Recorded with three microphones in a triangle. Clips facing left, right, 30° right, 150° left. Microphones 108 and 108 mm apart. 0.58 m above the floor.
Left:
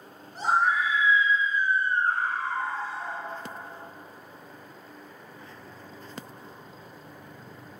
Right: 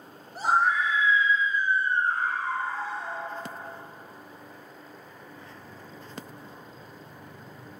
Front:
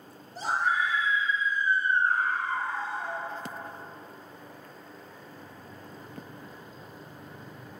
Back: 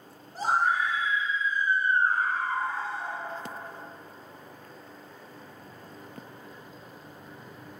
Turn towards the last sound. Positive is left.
turn(degrees=85)